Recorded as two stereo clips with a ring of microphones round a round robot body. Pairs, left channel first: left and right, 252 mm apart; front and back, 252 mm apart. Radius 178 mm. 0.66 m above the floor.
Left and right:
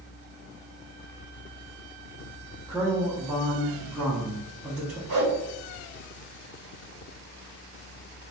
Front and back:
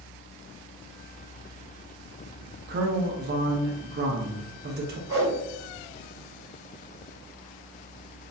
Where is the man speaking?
175° right, 0.6 m.